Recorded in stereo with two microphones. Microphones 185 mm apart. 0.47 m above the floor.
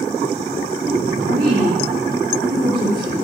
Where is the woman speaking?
50° right (ahead or behind), 7.5 m.